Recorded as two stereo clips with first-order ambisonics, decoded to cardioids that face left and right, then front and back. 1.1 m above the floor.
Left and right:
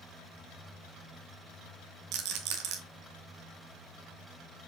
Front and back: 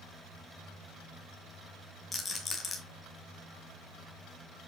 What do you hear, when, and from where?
2.1 s a rattle: 75° right, 1.8 m